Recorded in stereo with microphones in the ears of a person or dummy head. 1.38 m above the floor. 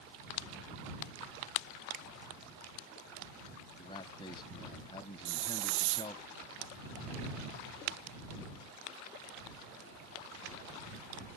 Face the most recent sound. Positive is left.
turn(degrees=-70)  # may be behind; listen again after turning